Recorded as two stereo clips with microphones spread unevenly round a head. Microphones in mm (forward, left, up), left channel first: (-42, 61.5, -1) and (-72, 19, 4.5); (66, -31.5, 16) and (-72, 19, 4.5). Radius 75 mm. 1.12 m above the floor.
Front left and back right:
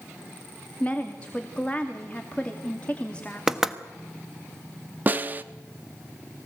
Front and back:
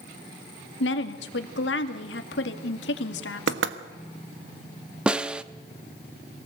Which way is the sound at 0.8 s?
25° right.